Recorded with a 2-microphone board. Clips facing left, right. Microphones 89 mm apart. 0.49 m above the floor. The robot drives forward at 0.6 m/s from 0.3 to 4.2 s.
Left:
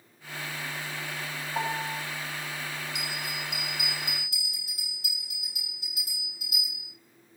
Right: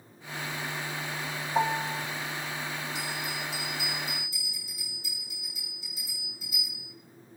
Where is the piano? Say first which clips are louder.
Right 4 dB; 20° right (ahead or behind), 8.5 m.